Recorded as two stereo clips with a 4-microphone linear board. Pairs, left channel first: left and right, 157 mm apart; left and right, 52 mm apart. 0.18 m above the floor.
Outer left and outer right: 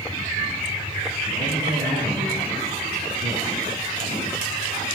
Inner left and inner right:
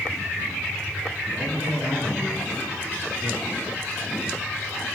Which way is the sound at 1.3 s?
35° right (ahead or behind).